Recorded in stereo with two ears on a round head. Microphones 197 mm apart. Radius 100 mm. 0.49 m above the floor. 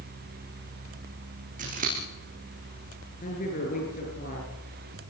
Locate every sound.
1.6 s scissors: 35° right (ahead or behind), 9 m
3.2 s a man speaking: 35° left (ahead or behind), 8.5 m